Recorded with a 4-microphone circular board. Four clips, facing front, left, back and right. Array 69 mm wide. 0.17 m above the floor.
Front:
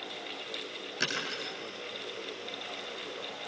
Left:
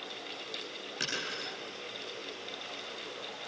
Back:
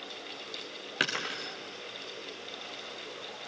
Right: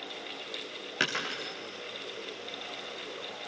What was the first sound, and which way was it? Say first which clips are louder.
Breaking glass: right 6 dB, back 2 dB; 140° right.